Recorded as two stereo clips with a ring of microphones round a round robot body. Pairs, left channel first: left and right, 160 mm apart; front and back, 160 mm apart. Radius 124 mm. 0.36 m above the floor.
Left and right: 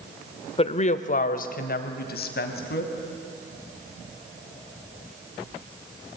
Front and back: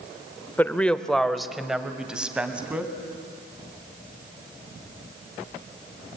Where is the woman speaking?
70° left, 1.2 m; by 2.9 s 100° left, 3 m.